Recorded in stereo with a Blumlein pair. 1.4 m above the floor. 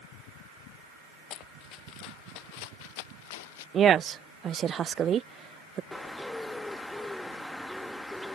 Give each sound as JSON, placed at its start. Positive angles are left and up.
{"t": 1.3, "sound": "running footsteps", "azimuth_deg": 35}
{"t": 3.7, "sound": "a woman speaking", "azimuth_deg": -25}
{"t": 5.9, "sound": "a bird", "azimuth_deg": 10}